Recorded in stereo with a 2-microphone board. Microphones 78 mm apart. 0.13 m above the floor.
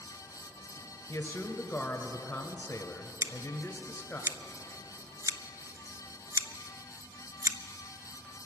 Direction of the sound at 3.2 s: 45° right (ahead or behind).